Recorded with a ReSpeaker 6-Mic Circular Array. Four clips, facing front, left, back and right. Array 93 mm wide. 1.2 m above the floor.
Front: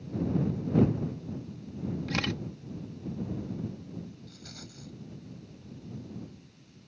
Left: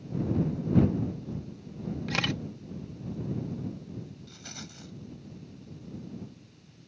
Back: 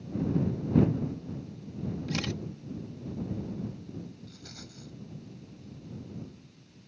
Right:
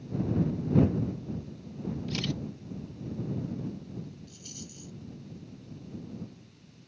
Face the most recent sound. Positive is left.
turn(degrees=90)